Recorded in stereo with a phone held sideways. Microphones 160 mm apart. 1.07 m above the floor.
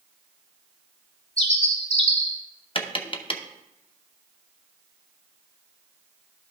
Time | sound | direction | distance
1.4 | a bird | 40° left (ahead or behind) | 1.3 m
2.8 | tapping | 35° left (ahead or behind) | 0.7 m